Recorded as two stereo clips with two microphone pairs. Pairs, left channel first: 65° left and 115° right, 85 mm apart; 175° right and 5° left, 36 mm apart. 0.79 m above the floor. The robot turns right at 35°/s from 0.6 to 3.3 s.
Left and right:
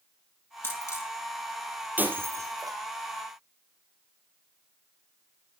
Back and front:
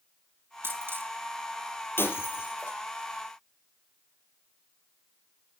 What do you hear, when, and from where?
0.6 s a dropped coin: straight ahead, 4 m; by 1.1 s 15° left, 4 m
2.0 s breaking glass: 175° left, 4.5 m; by 2.8 s 155° right, 4.5 m